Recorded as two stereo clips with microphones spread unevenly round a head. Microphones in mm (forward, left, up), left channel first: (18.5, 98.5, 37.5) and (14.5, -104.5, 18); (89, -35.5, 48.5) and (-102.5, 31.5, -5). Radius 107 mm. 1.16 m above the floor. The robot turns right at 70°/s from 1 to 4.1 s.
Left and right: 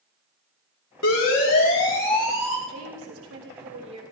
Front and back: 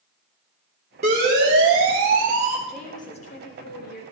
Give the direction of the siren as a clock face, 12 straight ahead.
8 o'clock.